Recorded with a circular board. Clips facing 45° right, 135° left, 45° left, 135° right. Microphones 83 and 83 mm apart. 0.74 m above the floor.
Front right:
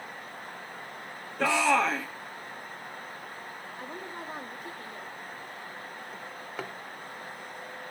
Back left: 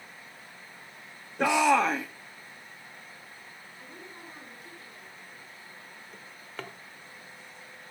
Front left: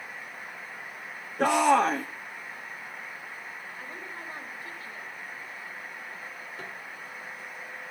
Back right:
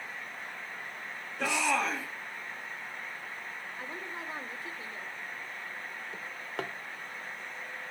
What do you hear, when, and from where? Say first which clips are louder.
1.4 s a shout: back left 2 dB, front left 9 dB; 70° left, 1.3 m
3.8 s a woman speaking: front right 7 dB, back right 2 dB; 70° right, 2.5 m
6.1 s a drawer: front right 3 dB, back right 2 dB; 125° right, 1.4 m